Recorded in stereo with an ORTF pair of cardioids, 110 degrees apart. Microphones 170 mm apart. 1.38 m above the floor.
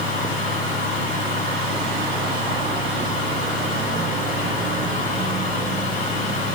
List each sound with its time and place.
0.0 s a fan: 55° left, 4 m